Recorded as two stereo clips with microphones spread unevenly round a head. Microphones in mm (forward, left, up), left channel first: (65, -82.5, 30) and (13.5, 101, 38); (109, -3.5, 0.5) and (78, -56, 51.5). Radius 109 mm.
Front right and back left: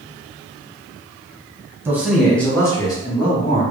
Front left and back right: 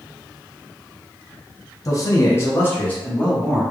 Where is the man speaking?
30° left, 1.3 m; by 3.6 s 15° right, 2 m.